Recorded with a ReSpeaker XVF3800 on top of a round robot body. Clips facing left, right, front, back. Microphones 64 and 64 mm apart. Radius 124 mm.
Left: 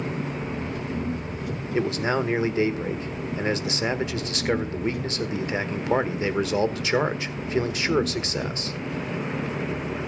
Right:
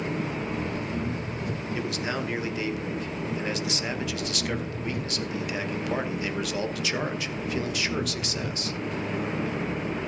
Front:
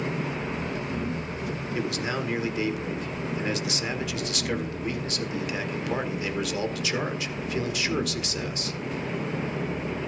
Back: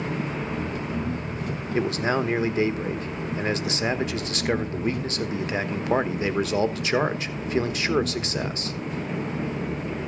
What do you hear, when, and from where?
0.0 s an engine running: 140° right, 4 m
1.7 s a man speaking: 140° left, 1.3 m